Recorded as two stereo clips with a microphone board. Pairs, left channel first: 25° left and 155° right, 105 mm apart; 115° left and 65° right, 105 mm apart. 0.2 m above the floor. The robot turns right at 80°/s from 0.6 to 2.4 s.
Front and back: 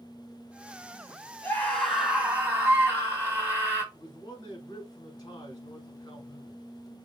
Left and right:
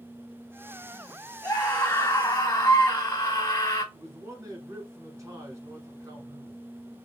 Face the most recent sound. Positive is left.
turn(degrees=-15)